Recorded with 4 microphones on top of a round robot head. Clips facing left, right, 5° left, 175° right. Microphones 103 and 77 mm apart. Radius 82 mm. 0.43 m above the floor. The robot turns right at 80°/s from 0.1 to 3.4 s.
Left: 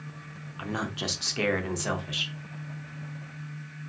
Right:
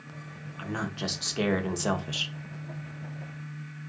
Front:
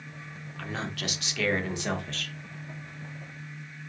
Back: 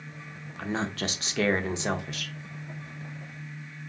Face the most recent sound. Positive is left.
turn(degrees=0)